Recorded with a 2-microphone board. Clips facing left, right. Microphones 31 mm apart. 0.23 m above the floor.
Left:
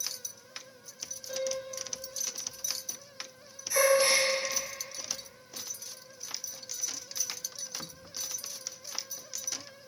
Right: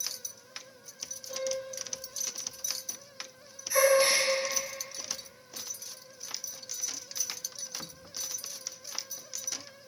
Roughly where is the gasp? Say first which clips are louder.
Right 1 dB; centre.